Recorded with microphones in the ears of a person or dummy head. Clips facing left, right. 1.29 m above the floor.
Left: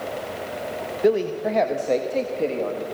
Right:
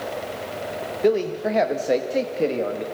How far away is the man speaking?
About 1.4 m.